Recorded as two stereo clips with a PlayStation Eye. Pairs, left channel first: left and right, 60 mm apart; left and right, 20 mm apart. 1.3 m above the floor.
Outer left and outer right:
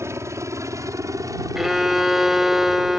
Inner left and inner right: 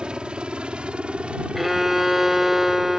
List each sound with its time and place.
0.0 s a helicopter: 50° right (ahead or behind); by 3.0 s 75° right (ahead or behind)
1.6 s a violin: 5° right (ahead or behind)